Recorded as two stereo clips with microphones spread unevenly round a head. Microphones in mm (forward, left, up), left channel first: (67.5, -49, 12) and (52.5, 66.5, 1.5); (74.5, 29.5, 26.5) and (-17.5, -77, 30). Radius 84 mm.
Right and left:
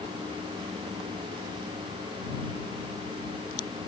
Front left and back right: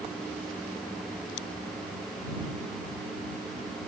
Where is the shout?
No shout in this recording.